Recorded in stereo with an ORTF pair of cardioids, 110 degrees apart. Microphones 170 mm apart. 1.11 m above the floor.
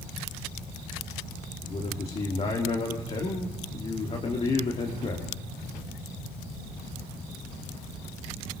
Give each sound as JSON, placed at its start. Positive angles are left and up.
{"t": 1.6, "sound": "a man speaking", "azimuth_deg": 35, "distance_m": 3.0}